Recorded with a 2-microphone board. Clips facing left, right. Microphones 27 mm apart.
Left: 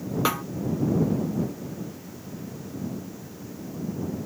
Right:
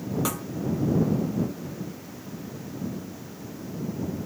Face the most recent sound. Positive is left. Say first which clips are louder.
# left 5 dB
turn(degrees=30)  # may be behind; listen again after turning